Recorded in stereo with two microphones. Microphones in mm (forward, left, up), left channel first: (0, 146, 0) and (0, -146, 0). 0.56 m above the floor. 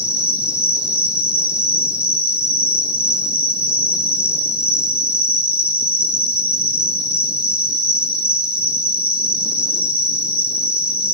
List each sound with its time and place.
0.0 s an insect: 5° right (ahead or behind), 2.5 m